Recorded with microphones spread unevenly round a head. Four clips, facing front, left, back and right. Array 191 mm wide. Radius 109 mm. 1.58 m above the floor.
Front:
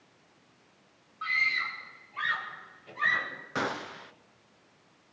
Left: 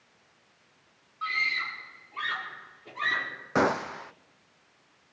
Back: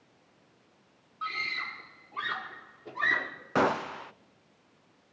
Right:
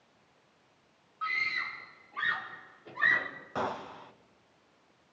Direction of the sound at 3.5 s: 115° left.